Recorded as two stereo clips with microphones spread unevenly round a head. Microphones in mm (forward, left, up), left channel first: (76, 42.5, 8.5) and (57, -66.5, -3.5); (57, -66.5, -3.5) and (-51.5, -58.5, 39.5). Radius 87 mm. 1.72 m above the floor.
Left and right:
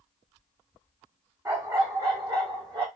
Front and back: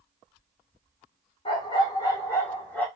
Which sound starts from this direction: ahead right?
A dog barking, at 1.4 s.